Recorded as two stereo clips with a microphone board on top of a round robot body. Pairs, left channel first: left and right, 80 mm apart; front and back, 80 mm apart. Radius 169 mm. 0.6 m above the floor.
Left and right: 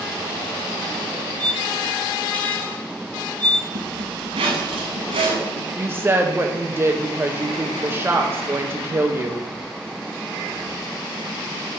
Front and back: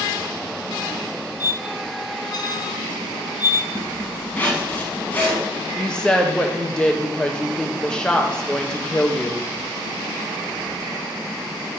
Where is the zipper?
75° right, 1.1 m.